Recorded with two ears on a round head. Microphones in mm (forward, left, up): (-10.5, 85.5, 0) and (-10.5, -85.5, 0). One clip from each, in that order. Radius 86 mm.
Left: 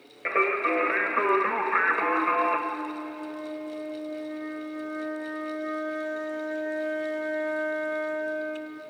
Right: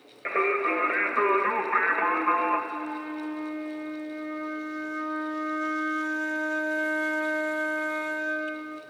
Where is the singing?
5° left (ahead or behind), 1.4 m.